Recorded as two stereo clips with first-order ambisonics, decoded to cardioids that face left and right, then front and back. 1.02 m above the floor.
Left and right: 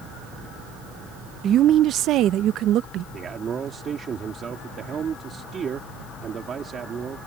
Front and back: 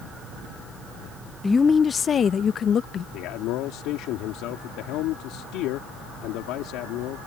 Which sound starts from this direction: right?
A woman speaking, at 1.4 s.